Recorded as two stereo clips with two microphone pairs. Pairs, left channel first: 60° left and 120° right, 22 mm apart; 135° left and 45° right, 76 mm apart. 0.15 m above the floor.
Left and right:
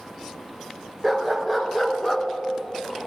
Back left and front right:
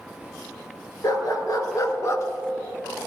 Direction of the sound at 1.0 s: 160° left.